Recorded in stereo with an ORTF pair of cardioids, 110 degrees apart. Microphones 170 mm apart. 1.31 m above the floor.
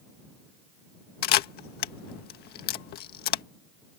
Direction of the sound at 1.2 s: 70° left.